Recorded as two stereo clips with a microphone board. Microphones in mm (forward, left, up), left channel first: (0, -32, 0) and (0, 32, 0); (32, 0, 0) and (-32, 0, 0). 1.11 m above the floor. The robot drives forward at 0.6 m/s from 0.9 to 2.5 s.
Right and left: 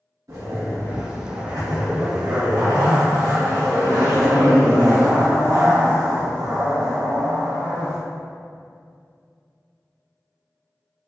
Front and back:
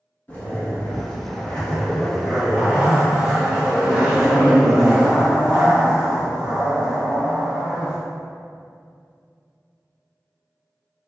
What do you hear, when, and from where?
0.3 s a zipper: 60° left, 1.3 m; by 8.0 s 105° left, 1.2 m